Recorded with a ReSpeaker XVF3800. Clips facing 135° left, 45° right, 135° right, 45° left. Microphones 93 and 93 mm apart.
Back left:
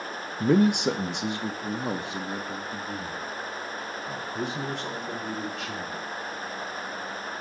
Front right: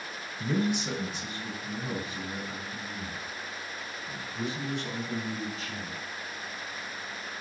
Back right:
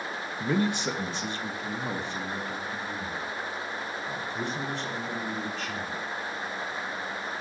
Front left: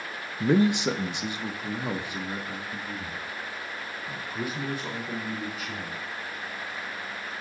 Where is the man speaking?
110° left, 0.5 m; by 6.0 s 125° left, 4 m.